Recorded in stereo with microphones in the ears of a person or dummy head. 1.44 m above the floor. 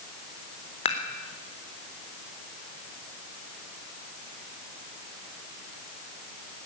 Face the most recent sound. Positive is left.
turn(degrees=35)  # may be behind; listen again after turning